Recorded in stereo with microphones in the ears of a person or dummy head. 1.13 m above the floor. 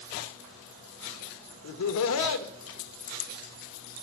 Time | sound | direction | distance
1.6 | laughter | 75° left (ahead or behind) | 0.5 m